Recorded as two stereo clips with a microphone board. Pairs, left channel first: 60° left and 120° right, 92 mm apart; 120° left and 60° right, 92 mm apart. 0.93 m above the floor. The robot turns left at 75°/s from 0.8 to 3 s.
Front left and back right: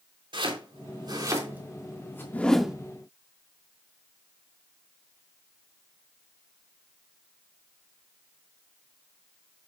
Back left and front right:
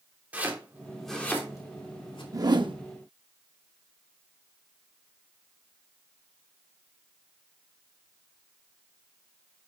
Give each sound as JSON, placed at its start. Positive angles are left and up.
{"t": 0.3, "sound": "chopping", "azimuth_deg": -130, "distance_m": 3.0}
{"t": 2.3, "sound": "a whoosh", "azimuth_deg": -10, "distance_m": 0.9}